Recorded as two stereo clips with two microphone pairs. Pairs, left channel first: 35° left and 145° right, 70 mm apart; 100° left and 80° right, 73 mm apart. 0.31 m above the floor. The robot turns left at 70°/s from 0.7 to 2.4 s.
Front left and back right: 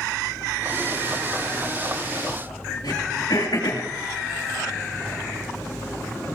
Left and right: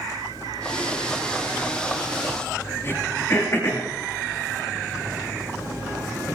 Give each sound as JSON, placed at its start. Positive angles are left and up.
{"t": 2.8, "sound": "throat clearing", "azimuth_deg": 45, "distance_m": 6.0}